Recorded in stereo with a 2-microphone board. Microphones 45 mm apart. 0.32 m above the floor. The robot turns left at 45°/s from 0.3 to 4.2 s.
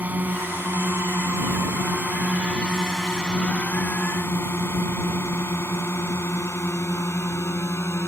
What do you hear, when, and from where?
0.0 s a drone: 35° right (ahead or behind); by 8.1 s 65° left (ahead or behind)